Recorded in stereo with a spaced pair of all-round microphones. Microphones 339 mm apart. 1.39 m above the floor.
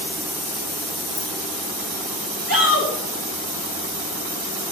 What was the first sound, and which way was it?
Keys jangling, 35° left (ahead or behind).